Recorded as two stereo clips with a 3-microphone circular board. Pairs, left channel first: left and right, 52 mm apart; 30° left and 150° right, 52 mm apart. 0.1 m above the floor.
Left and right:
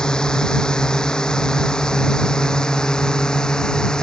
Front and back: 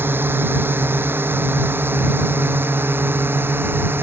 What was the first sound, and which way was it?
A drone, 165° left.